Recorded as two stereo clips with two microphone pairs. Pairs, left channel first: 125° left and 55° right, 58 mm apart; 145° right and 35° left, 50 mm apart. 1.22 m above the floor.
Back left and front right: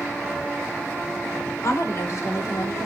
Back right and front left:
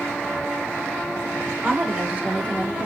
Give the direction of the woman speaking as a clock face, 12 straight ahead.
9 o'clock.